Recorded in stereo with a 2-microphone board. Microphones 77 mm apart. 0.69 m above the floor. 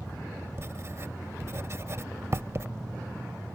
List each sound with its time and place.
0.6 s writing: 40° right (ahead or behind)